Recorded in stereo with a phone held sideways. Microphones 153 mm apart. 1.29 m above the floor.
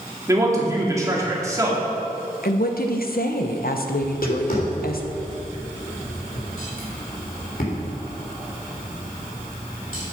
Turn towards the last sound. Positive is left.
turn(degrees=65)  # may be behind; listen again after turning